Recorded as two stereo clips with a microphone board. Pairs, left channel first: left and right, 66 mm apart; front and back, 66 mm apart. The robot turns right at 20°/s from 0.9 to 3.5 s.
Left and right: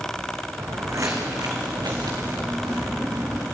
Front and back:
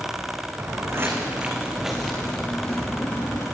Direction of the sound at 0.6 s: 135° right.